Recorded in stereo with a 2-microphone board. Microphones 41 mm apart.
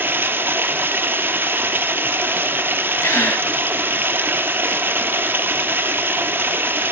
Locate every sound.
0.0 s running water: 55° right (ahead or behind), 1.1 m
3.0 s a gasp: 85° left, 2.5 m